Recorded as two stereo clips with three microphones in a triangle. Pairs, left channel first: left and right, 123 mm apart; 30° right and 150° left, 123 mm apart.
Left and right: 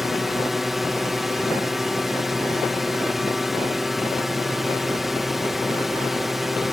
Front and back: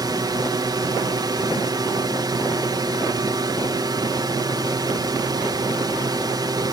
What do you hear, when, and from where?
0.0 s a drone: straight behind